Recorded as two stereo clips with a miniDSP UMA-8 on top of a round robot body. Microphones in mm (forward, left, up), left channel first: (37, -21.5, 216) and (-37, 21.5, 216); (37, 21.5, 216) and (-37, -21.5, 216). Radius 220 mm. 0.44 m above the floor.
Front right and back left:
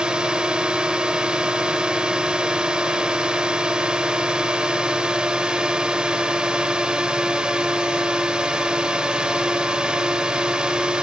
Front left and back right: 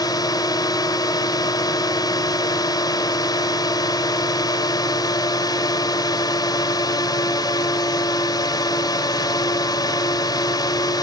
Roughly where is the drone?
Left.